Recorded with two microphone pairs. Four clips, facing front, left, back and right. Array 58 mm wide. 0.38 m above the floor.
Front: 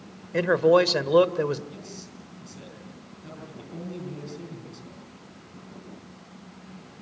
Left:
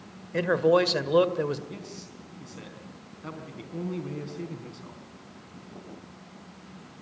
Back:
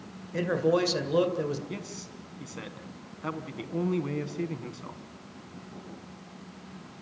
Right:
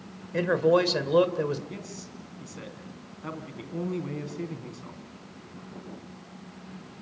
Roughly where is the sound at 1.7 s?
Behind.